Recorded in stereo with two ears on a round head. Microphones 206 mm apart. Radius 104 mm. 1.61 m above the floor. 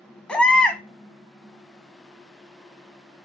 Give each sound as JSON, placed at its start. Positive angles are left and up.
{"t": 0.3, "sound": "a baby crying", "side_deg": 5, "distance_m": 0.9}